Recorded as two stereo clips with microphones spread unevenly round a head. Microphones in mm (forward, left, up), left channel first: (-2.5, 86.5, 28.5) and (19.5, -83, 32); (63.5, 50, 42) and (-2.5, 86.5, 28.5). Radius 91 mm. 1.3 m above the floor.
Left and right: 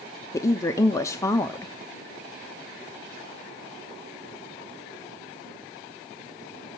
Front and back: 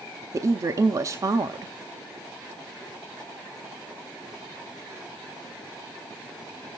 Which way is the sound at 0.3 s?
165° left.